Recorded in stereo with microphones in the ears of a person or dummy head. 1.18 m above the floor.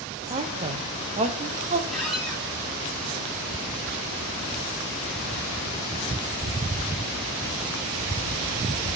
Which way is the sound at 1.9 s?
Centre (ahead or behind).